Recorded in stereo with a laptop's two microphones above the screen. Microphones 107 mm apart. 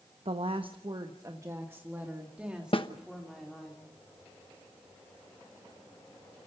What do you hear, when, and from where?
0.2 s a woman speaking: 70° right (ahead or behind), 0.9 m; by 3.7 s centre (ahead or behind), 2.5 m
2.7 s a snare drum: 55° left (ahead or behind), 1.0 m